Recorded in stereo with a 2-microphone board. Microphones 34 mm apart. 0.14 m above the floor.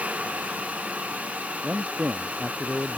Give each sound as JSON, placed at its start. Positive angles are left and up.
{"t": 1.6, "sound": "a man speaking", "side_deg": -40}